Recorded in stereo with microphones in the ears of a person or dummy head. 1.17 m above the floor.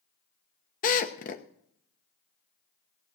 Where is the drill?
40° left (ahead or behind), 0.9 m.